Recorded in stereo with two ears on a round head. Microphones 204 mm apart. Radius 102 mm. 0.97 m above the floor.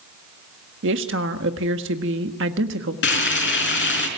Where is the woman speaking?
60° right (ahead or behind), 1.6 m.